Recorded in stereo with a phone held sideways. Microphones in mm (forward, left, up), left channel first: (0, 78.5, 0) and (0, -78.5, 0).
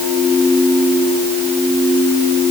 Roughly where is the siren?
No siren in this recording.